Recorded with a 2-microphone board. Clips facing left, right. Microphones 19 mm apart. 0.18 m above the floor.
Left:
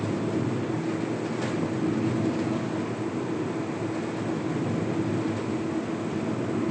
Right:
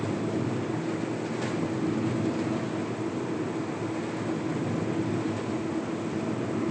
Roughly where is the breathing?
No breathing in this recording.